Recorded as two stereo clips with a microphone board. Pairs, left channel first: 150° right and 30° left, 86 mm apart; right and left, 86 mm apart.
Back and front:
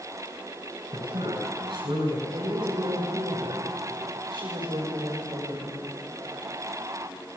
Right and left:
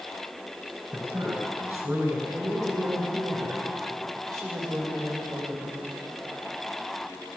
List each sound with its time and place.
0.9 s a man speaking: 30° left, 6 m
2.3 s a woman speaking: 45° left, 5.5 m